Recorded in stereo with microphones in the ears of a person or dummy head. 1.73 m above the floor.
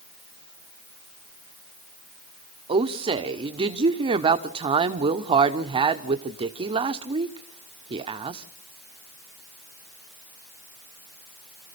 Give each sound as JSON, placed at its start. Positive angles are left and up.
{"t": 2.7, "sound": "a woman speaking", "side_deg": -25, "distance_m": 0.8}